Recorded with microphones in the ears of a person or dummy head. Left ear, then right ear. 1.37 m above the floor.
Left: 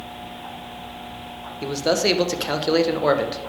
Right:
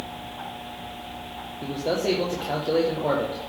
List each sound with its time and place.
1.6 s a man speaking: 55° left (ahead or behind), 1.2 m